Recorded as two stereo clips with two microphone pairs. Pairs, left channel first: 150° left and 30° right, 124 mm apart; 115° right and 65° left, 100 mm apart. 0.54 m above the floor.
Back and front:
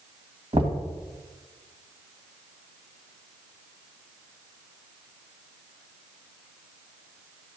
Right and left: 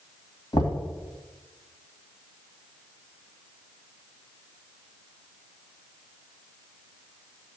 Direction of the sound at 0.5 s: 70° right.